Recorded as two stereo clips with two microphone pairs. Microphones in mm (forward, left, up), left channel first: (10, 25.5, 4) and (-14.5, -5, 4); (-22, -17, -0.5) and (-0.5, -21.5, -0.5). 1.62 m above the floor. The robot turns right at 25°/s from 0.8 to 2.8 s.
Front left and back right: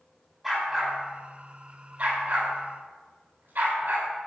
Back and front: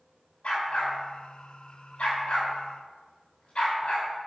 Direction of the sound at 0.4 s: 145° left.